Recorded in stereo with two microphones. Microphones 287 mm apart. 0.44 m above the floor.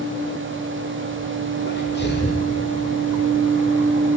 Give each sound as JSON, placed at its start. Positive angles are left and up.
{"t": 1.6, "sound": "a sneeze", "side_deg": 35, "distance_m": 1.7}